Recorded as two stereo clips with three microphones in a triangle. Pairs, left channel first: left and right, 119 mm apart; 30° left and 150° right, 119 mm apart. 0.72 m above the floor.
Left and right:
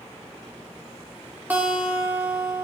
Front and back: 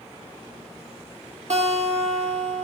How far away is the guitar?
About 1.3 m.